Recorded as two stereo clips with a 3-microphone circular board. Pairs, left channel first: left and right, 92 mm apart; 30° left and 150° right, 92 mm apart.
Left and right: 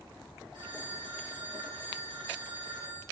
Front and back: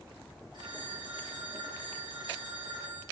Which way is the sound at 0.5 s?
115° right.